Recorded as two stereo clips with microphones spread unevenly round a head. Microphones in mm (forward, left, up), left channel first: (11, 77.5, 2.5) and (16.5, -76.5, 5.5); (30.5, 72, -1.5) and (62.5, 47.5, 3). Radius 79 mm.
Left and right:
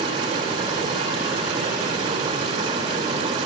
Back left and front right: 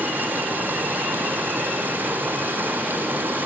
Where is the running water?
35° right, 2 m.